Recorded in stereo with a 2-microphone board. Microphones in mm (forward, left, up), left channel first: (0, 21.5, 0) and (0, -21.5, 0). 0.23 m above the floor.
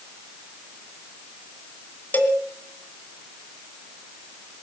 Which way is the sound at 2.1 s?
45° left (ahead or behind).